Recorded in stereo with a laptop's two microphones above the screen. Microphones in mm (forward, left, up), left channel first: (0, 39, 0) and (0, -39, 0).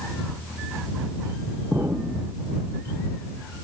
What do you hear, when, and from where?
1.7 s an explosion: 25° right (ahead or behind)